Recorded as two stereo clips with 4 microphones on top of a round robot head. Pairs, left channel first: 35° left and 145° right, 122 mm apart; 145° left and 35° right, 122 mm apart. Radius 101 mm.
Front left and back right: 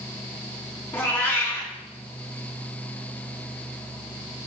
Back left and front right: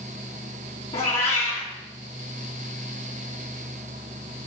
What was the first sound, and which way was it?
A cat meowing, 105° left.